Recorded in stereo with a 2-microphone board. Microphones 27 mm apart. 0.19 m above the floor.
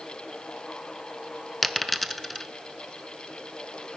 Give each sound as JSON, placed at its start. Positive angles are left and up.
{"t": 1.6, "sound": "a dropped coin", "side_deg": 0, "distance_m": 0.9}